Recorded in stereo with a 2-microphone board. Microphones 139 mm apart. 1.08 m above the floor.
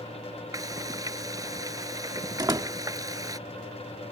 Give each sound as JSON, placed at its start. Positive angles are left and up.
{"t": 0.5, "sound": "frying", "side_deg": -25}
{"t": 2.4, "sound": "a door slam", "side_deg": -30}